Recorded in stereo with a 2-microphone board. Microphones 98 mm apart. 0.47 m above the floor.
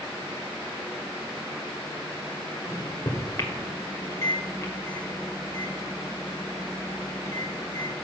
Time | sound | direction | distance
2.6 | a microwave | 35° left (ahead or behind) | 1.6 m